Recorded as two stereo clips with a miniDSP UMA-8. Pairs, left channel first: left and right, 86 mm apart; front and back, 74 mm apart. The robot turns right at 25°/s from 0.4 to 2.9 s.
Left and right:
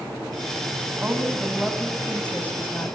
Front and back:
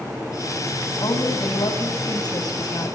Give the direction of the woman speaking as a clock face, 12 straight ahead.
12 o'clock.